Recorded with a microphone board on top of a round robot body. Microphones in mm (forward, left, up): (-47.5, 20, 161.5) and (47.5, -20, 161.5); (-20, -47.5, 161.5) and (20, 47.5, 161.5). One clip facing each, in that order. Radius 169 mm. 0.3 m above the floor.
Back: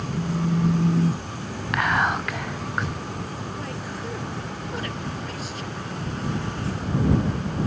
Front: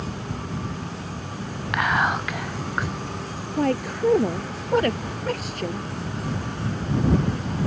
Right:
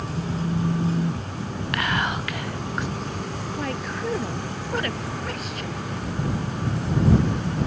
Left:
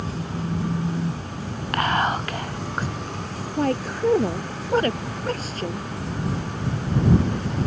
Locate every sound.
0.1 s a phone buzzing: 160° left
1.7 s whispering: 65° left
3.6 s a woman speaking: 15° left